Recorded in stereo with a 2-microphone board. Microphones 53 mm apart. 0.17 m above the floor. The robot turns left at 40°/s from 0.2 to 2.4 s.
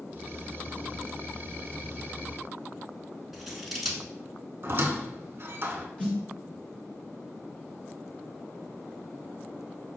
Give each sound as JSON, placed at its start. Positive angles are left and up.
{"t": 3.3, "sound": "scissors", "side_deg": 0, "distance_m": 0.8}
{"t": 4.6, "sound": "a squeak", "side_deg": -45, "distance_m": 0.5}
{"t": 6.0, "sound": "a snare drum", "side_deg": 20, "distance_m": 1.7}